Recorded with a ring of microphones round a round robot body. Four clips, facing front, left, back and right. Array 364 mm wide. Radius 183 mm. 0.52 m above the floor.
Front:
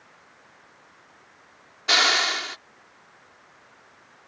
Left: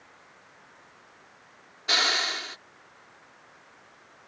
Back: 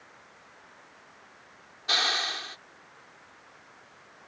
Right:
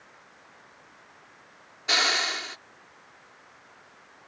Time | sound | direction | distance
1.9 | a hiss | 5° right | ?